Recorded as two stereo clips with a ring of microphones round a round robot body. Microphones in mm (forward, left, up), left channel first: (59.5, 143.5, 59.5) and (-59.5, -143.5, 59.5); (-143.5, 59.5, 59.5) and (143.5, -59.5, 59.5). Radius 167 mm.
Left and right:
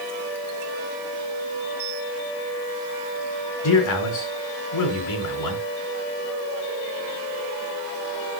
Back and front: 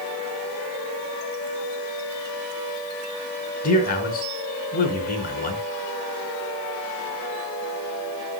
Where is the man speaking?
95° left, 5.5 m.